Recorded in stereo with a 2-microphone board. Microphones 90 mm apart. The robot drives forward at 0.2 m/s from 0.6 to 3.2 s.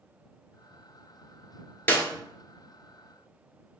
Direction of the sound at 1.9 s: 25° left (ahead or behind).